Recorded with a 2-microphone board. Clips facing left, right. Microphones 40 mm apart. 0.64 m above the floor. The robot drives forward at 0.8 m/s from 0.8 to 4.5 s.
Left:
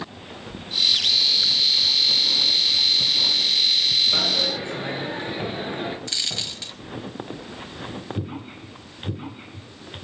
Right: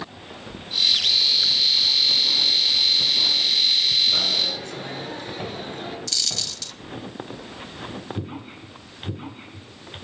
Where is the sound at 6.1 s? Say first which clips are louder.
Even; 25° left (ahead or behind), 1.2 m.